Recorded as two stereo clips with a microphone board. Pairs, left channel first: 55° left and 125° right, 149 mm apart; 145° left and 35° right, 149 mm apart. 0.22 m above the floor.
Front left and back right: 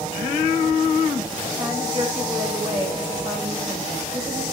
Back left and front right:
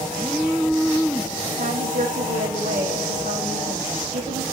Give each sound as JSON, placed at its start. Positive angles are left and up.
{"t": 1.6, "sound": "a woman speaking", "azimuth_deg": -65, "distance_m": 9.0}